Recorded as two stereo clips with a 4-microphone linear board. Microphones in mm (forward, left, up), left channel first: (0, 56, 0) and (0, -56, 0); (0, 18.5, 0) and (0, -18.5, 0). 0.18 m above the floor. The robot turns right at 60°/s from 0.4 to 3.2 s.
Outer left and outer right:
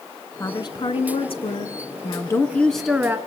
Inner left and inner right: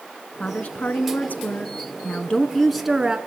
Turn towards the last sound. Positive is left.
turn(degrees=-155)